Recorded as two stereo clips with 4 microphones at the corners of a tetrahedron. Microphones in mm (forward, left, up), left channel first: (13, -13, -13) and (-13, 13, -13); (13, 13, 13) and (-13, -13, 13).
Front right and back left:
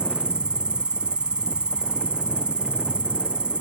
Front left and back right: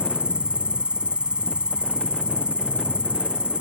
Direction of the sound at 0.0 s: Straight behind.